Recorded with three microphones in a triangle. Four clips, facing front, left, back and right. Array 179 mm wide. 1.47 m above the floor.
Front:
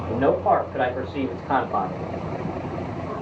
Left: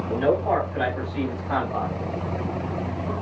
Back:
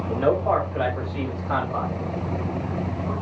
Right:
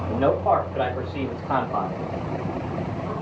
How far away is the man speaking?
About 5.5 m.